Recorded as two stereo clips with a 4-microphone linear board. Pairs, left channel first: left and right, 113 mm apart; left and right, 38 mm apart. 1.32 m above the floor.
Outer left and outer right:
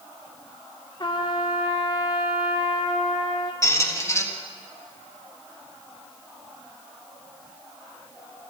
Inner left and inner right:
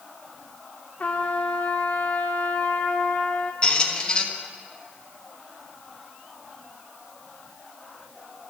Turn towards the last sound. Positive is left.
turn(degrees=25)  # may be behind; listen again after turning